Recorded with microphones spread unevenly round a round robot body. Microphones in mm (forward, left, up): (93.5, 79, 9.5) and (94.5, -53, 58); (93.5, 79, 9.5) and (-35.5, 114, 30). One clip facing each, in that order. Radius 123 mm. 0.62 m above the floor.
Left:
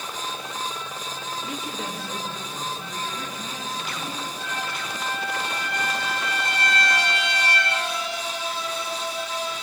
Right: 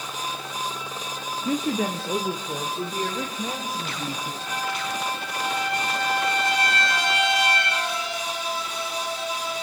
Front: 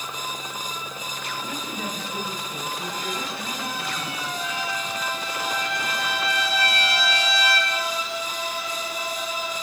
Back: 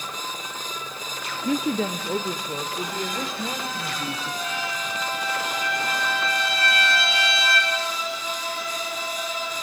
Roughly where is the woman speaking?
Behind right.